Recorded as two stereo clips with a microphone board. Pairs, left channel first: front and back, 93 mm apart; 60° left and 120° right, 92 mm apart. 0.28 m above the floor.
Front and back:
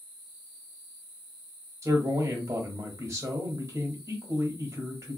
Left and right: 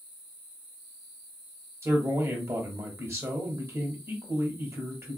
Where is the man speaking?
145° right, 1.1 m.